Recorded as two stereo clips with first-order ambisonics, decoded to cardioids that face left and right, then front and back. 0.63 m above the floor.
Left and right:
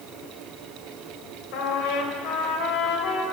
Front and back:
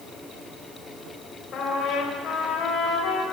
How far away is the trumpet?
About 3 m.